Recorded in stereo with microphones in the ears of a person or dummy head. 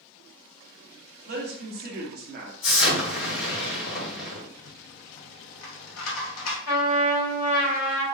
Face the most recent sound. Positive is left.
turn(degrees=75)  # may be behind; listen again after turning